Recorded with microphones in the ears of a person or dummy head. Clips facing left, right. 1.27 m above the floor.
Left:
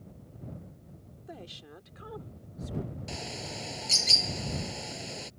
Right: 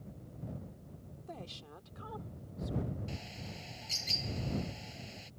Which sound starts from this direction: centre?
A woman speaking, at 1.3 s.